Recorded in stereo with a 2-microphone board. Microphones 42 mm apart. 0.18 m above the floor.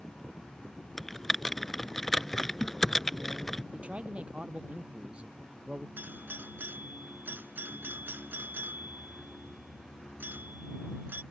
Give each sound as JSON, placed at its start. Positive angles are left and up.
{"t": 1.0, "sound": "typing on a keyboard", "side_deg": 5}
{"t": 3.7, "sound": "a man speaking", "side_deg": -30}
{"t": 6.0, "sound": "a doorbell", "side_deg": -55}